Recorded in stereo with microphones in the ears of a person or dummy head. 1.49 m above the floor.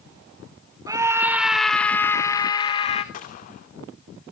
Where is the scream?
15° right (ahead or behind), 1.8 m; by 3.0 s 35° left (ahead or behind), 2 m.